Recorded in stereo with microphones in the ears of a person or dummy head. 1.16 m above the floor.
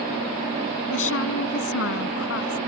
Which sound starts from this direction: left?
A woman speaking, at 0.9 s.